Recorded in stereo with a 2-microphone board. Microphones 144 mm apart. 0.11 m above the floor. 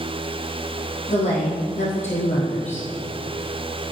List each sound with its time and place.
1.1 s a woman speaking: 50° left (ahead or behind), 3 m